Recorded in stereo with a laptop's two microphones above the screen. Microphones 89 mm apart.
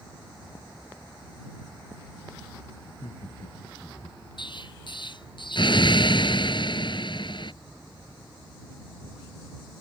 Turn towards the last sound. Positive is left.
turn(degrees=60)  # may be behind; listen again after turning